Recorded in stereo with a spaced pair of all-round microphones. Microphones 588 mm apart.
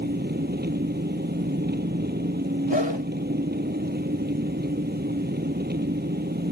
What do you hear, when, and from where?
0.0 s an engine running: 15° right (ahead or behind)
2.7 s a whoosh: 50° left (ahead or behind)